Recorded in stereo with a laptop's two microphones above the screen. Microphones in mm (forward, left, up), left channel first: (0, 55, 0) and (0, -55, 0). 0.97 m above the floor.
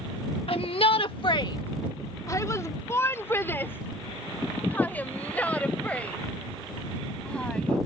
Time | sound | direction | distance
0.5 | a shout | 60° left (ahead or behind) | ?